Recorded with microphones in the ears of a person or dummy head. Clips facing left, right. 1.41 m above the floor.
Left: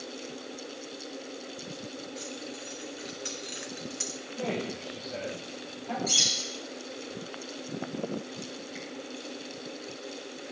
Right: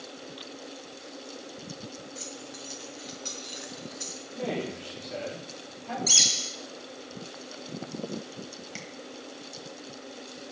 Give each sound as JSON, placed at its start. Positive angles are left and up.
{"t": 2.1, "sound": "keys jangling", "side_deg": 0, "distance_m": 2.0}
{"t": 4.3, "sound": "a man speaking", "side_deg": -20, "distance_m": 5.5}
{"t": 6.1, "sound": "a bird", "side_deg": -40, "distance_m": 3.0}
{"t": 8.8, "sound": "tapping", "side_deg": -70, "distance_m": 1.8}